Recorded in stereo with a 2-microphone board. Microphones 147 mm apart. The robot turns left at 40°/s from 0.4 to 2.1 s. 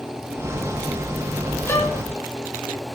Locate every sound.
1.7 s a violin: 15° left (ahead or behind), 4.5 m; by 2.0 s 25° left (ahead or behind), 4.5 m